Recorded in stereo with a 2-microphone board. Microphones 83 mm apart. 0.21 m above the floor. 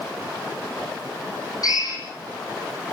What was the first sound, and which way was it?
A drill, 50° left (ahead or behind).